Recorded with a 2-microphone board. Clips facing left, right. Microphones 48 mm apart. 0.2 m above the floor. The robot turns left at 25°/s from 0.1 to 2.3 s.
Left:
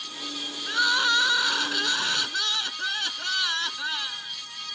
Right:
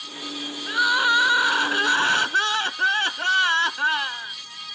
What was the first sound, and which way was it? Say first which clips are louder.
Crying: right 4 dB; 10° right.